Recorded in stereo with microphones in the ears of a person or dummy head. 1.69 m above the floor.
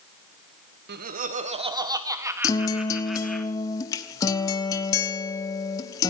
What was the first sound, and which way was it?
Laughter, 55° right (ahead or behind).